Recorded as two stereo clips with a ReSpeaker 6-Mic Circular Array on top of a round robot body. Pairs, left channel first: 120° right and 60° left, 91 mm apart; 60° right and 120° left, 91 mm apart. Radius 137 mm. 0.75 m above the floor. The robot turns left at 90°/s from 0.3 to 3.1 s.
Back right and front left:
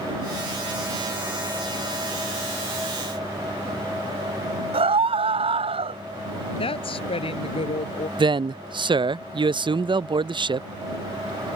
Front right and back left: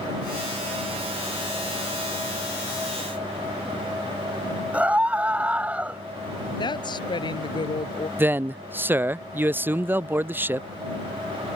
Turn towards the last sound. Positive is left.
turn(degrees=55)